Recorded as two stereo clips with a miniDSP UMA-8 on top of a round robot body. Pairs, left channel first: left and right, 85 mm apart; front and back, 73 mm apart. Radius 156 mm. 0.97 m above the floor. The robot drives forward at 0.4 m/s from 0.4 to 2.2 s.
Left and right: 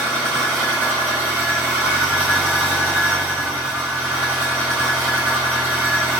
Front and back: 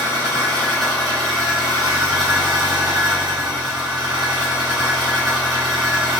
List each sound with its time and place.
0.0 s an engine running: 150° right, 1.1 m; by 6.2 s 165° right, 1.7 m